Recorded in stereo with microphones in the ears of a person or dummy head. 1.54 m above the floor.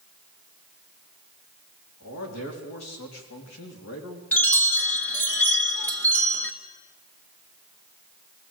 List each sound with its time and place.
2.0 s a man speaking: 85° left, 3.5 m; by 4.2 s 80° left, 3 m
4.3 s a chime: 10° left (ahead or behind), 1.3 m